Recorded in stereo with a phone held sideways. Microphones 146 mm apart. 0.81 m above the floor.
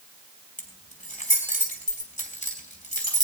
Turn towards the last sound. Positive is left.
turn(degrees=55)  # may be behind; listen again after turning